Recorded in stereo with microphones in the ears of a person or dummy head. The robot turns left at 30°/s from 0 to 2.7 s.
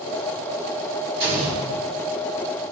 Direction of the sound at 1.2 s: 30° right (ahead or behind).